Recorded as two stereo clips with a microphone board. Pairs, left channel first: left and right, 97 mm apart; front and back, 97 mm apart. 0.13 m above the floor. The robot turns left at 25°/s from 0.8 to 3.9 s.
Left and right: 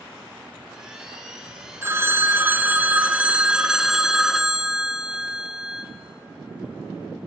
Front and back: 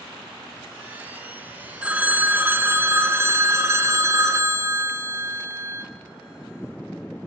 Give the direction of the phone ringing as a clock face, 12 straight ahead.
4 o'clock.